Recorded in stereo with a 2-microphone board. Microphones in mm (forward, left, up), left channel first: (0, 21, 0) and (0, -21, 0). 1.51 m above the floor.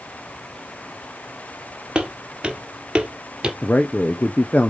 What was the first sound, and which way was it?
Footsteps, 20° right (ahead or behind).